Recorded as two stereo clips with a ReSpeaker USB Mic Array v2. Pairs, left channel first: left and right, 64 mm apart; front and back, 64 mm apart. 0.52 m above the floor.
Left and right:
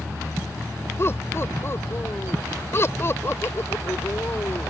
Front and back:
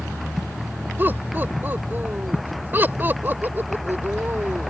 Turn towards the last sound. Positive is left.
turn(degrees=130)